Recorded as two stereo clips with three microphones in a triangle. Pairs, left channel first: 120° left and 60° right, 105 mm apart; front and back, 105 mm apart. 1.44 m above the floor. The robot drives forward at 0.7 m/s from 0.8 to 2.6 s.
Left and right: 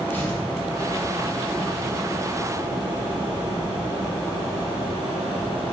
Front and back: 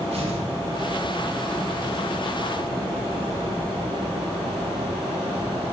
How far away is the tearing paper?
About 3.5 m.